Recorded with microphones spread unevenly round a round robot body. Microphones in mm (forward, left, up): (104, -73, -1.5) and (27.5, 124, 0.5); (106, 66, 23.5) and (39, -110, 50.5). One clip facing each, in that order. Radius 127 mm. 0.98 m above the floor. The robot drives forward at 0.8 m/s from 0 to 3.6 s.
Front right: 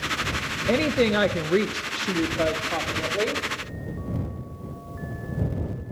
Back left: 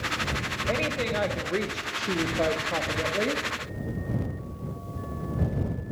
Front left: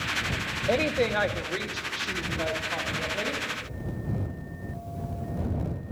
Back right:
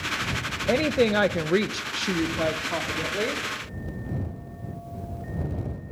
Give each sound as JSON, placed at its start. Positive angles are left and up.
{"t": 0.7, "sound": "a woman speaking", "azimuth_deg": -35, "distance_m": 0.7}